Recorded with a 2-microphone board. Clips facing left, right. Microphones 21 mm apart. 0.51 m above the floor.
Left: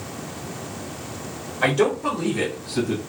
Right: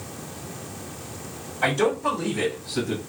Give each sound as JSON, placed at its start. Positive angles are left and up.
{"t": 1.6, "sound": "a man speaking", "side_deg": 40, "distance_m": 1.7}